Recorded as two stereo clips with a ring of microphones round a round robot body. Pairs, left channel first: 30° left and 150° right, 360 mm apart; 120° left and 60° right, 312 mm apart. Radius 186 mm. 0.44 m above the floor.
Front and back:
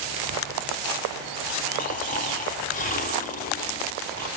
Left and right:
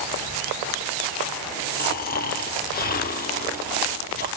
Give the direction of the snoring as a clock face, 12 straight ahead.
9 o'clock.